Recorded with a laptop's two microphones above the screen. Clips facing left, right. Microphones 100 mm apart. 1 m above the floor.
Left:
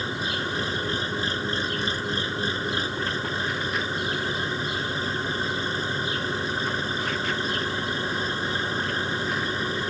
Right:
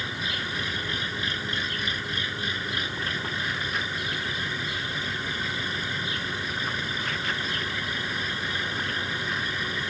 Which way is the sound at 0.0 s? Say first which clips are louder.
Left 4 dB; 30° left (ahead or behind).